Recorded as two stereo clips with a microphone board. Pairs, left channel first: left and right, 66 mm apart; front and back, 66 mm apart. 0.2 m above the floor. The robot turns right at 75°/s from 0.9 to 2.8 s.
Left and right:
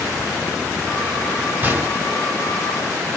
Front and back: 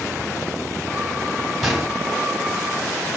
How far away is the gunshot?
About 1.7 m.